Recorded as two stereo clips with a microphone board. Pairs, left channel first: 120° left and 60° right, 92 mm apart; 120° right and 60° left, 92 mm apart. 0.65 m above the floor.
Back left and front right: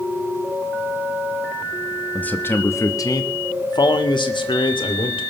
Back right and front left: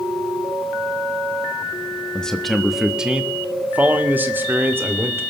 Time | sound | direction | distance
2.1 | a man speaking | 170° left | 1.2 m